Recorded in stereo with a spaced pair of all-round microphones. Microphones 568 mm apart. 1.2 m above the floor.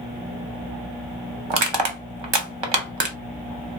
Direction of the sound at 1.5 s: 50° right (ahead or behind).